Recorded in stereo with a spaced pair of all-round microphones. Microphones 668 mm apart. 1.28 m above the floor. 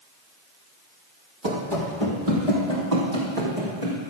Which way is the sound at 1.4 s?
40° right (ahead or behind).